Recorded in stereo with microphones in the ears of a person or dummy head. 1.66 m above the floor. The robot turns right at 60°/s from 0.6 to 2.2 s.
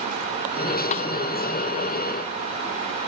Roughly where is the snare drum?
Left.